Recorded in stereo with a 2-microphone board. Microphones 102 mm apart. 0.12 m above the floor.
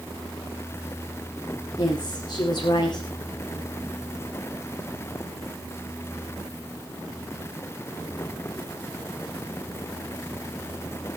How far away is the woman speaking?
About 8.5 m.